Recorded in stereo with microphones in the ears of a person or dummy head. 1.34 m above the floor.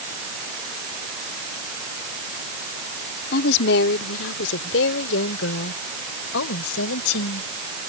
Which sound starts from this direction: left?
A woman speaking, at 3.3 s.